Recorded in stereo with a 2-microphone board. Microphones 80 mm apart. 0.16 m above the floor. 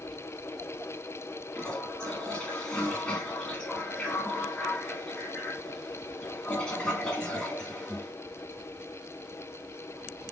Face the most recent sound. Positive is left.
turn(degrees=10)  # may be behind; listen again after turning